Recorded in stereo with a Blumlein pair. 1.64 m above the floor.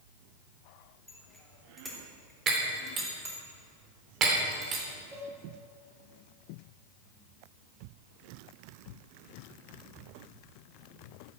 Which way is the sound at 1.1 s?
5° left.